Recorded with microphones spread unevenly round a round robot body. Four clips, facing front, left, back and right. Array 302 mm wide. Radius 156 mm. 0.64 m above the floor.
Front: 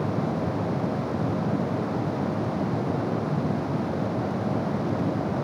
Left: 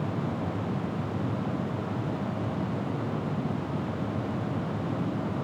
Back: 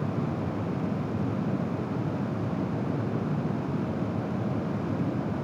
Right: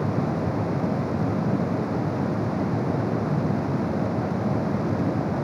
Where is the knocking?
No knocking in this recording.